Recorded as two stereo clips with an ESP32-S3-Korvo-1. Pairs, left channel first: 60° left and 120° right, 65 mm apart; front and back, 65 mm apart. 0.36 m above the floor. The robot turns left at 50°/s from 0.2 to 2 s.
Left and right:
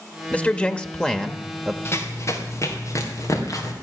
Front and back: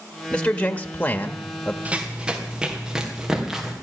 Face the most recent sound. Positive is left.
turn(degrees=95)